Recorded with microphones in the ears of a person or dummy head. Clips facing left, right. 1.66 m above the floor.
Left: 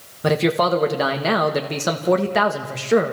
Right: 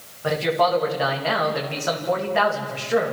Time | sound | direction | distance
0.2 | a man speaking | 55° left (ahead or behind) | 2 m